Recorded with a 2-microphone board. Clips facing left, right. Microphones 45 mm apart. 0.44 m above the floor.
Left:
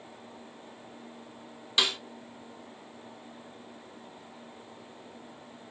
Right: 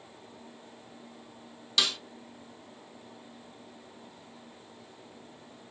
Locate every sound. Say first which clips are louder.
1.8 s a snare drum: left 1 dB; 20° left (ahead or behind), 0.7 m